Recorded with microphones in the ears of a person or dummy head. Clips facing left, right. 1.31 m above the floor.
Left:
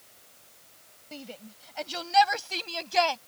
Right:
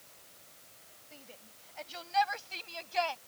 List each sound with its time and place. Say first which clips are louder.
1.1 s a shout: left 13 dB; 80° left; by 3.2 s 70° left (ahead or behind)